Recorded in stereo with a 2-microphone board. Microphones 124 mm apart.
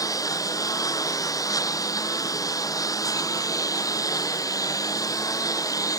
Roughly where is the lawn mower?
Left.